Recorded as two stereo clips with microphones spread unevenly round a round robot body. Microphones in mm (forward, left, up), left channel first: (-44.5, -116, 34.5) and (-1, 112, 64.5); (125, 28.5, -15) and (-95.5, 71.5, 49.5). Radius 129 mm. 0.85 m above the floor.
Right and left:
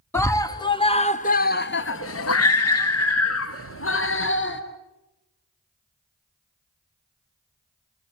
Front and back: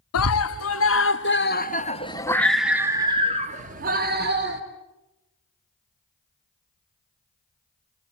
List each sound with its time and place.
0.1 s a scream: 20° right, 1.4 m; by 4.6 s 140° right, 1.6 m